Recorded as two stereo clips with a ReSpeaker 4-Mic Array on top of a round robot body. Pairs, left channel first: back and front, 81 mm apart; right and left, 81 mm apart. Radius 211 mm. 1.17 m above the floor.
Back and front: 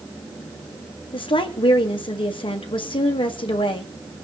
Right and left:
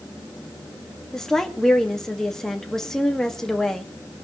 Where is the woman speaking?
175° right, 2 m.